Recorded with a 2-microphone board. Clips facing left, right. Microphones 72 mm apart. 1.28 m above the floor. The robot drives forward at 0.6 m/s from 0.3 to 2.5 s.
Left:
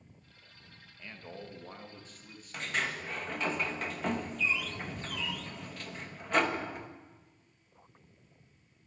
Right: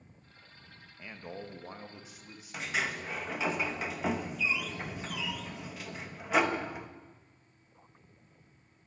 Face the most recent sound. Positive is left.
turn(degrees=-5)  # may be behind; listen again after turning